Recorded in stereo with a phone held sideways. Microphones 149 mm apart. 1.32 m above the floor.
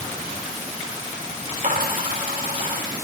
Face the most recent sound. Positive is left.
turn(degrees=-65)  # may be behind; listen again after turning